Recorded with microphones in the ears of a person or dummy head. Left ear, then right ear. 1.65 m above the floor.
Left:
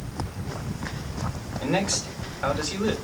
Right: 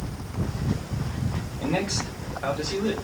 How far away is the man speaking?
About 3 m.